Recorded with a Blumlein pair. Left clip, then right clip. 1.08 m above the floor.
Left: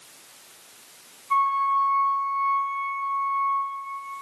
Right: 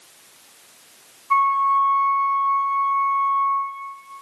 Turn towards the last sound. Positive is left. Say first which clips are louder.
# right 4 dB
turn(degrees=-20)